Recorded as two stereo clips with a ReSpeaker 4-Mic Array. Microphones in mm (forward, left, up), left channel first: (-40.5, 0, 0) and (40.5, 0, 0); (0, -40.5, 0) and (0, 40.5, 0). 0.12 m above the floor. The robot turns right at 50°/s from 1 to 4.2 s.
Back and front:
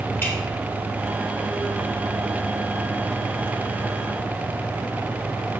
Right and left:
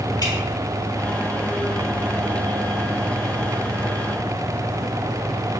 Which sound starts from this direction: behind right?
Dripping, at 0.2 s.